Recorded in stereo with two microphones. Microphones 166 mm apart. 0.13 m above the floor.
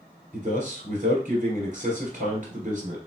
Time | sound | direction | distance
0.3 | a man speaking | 50° right (ahead or behind) | 2 m